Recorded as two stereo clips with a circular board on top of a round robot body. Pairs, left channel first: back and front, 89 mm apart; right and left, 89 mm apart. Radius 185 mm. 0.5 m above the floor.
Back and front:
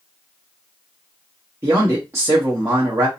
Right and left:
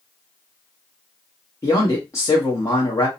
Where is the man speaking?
50° right, 1.1 m.